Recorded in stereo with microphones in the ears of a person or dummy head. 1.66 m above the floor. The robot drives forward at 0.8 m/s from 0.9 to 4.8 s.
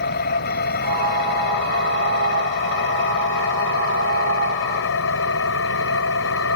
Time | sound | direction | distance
0.0 | an engine running | 55° left (ahead or behind) | ?